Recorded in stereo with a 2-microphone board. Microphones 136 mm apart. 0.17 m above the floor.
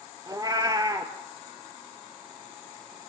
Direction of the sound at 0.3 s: 30° right (ahead or behind).